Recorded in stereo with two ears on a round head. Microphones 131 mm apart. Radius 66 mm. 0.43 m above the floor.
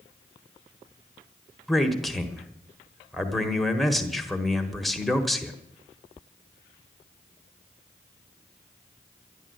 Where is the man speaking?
Centre (ahead or behind), 1.4 m.